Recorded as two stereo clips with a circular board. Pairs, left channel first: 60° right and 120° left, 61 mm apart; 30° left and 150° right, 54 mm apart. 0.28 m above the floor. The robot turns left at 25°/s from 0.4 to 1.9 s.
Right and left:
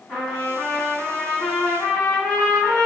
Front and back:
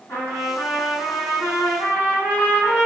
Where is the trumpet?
25° left, 1.9 m; by 2.9 s 10° right, 1.9 m.